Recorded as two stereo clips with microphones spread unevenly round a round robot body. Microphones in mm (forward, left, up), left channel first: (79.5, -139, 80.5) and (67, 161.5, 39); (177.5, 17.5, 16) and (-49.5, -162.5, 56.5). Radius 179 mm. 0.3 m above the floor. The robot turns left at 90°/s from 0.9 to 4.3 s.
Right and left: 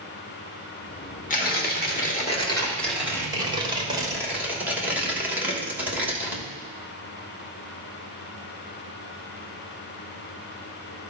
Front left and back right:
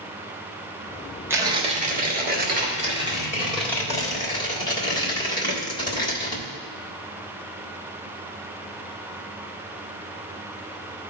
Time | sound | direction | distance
1.3 | tearing paper | 50° right | 1.6 m